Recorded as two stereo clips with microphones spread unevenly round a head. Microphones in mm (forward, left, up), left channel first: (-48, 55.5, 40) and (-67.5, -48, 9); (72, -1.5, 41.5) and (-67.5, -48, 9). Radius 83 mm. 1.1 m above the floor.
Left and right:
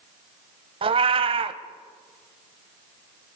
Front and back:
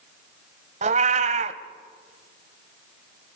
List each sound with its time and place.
0.8 s a cat meowing: 125° right, 1.1 m